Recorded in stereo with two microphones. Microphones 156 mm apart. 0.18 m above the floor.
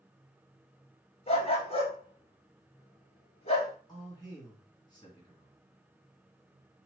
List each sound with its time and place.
1.3 s a dog barking: 40° left (ahead or behind), 1.2 m
3.9 s a man speaking: 25° left (ahead or behind), 2.0 m